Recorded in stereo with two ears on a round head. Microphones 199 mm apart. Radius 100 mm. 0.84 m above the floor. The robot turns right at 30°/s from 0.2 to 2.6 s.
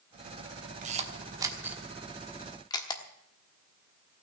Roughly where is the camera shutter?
Right.